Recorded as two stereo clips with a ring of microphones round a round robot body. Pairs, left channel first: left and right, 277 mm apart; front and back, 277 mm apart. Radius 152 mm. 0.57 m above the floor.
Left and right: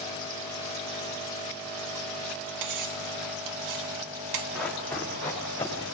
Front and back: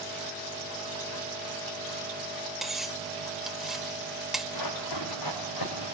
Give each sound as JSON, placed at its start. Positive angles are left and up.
{"t": 2.6, "sound": "cutlery clinking", "azimuth_deg": -90, "distance_m": 1.4}
{"t": 4.5, "sound": "running footsteps", "azimuth_deg": 5, "distance_m": 5.5}